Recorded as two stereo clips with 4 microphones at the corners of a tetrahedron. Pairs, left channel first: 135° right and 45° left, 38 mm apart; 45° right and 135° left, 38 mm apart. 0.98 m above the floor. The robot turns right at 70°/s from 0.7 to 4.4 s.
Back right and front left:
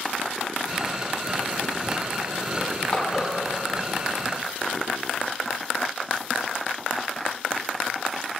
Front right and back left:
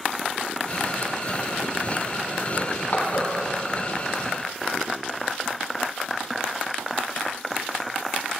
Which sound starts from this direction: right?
Crushing, at 2.6 s.